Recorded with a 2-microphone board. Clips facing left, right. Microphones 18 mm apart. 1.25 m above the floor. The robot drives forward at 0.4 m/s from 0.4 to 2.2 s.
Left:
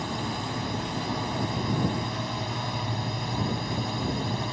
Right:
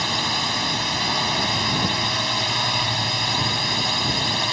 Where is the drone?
80° right; by 4.5 s 85° right.